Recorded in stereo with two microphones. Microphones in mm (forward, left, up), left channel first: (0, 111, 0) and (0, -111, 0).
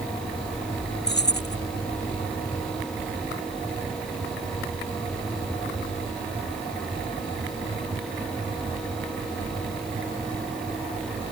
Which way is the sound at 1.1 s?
50° left (ahead or behind).